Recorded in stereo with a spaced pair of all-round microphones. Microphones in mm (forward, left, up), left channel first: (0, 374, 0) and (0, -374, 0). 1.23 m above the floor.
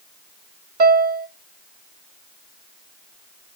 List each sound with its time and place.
0.8 s a piano: 65° right (ahead or behind), 1.4 m